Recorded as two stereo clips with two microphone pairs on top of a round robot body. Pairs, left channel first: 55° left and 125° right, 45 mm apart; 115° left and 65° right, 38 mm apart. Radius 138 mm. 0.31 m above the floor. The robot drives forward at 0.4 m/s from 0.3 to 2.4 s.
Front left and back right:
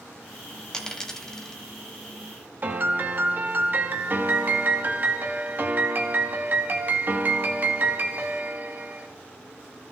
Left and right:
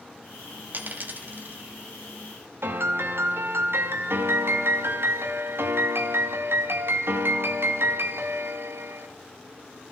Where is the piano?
80° right, 1.0 m.